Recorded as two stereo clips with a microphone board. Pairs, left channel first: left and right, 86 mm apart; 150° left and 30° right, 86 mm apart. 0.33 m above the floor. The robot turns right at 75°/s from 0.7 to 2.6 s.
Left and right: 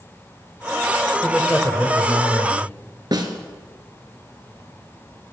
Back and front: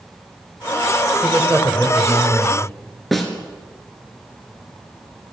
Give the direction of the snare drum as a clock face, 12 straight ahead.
4 o'clock.